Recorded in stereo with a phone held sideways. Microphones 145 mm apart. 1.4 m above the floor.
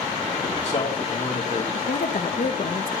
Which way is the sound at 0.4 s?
50° left (ahead or behind).